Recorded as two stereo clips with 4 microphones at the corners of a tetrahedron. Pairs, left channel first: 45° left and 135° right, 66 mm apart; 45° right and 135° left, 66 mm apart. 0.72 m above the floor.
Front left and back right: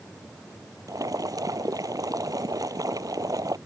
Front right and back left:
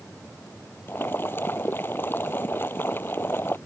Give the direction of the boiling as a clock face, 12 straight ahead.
3 o'clock.